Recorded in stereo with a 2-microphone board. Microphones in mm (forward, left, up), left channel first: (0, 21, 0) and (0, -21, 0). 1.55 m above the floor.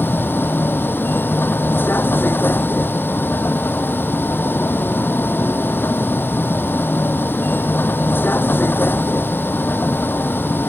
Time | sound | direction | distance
0.0 | a vehicle | 55° left (ahead or behind) | ?